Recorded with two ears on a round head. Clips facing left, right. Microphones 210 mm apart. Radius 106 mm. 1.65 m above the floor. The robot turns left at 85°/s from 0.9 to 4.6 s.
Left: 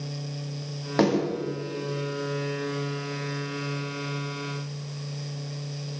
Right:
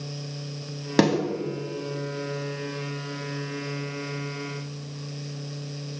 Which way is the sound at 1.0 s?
40° right (ahead or behind).